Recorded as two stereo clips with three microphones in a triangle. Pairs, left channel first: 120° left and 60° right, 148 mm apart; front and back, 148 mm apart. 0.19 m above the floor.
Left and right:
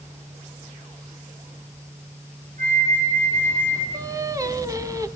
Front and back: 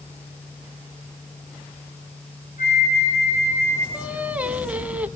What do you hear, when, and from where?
2.6 s a flute: 30° right, 7 m
3.9 s singing: 105° right, 1.4 m